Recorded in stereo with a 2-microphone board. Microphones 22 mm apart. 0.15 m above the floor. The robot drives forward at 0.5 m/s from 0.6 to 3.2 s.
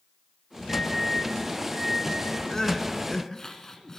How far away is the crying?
About 1.7 m.